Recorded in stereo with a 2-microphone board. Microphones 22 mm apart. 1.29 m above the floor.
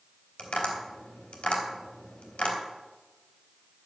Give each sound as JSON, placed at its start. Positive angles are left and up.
{"t": 0.4, "sound": "tapping", "side_deg": 65, "distance_m": 3.5}